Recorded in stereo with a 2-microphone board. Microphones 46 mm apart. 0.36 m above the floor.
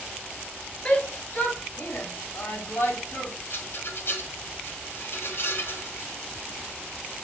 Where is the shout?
25° left (ahead or behind), 1.1 m; by 3.3 s 60° left (ahead or behind), 2 m.